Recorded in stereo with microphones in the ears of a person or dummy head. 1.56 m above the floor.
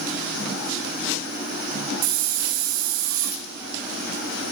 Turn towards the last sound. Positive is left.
turn(degrees=-70)  # may be behind; listen again after turning